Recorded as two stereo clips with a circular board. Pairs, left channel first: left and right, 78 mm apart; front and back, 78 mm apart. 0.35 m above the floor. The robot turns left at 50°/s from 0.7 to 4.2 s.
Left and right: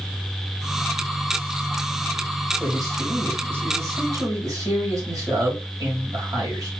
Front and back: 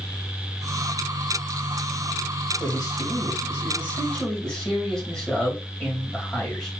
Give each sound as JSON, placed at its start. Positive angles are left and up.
{"t": 2.6, "sound": "a man speaking", "azimuth_deg": 0, "distance_m": 2.0}